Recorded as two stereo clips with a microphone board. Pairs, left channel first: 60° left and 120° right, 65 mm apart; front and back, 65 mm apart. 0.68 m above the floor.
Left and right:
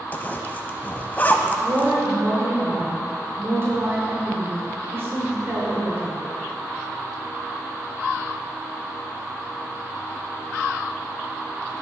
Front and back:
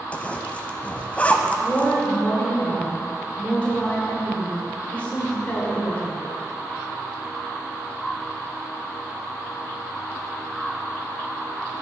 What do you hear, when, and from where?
0.1 s a zipper: 45° left, 0.5 m
1.6 s a woman speaking: 70° right, 2 m